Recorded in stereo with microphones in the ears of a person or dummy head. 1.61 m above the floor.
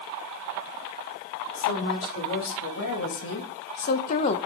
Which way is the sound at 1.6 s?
80° left.